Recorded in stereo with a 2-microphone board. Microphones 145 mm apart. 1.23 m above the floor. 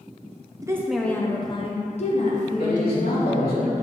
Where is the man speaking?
80° left, 2.5 m.